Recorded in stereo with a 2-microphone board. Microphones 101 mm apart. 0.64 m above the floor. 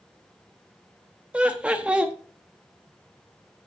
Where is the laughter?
10° right (ahead or behind), 0.7 m.